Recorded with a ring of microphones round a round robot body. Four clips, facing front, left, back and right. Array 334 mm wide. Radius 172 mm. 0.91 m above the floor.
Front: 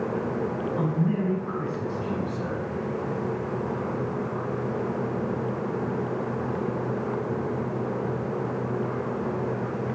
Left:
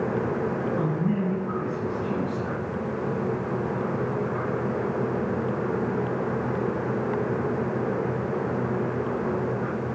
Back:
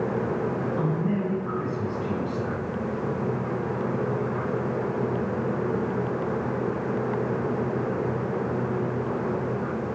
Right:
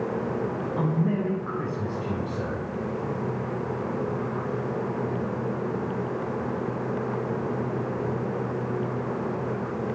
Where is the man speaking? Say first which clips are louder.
Even, front 3 dB; 100° right, 3.5 m; by 2.7 s 115° right, 3.5 m.